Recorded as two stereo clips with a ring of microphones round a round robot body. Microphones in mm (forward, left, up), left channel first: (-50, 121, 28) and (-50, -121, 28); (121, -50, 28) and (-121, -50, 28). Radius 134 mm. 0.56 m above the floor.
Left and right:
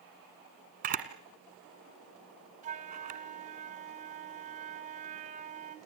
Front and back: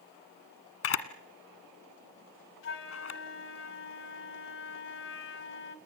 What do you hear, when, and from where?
0.8 s a camera shutter: 30° right, 1.7 m
2.6 s a flute: 30° right, 2.5 m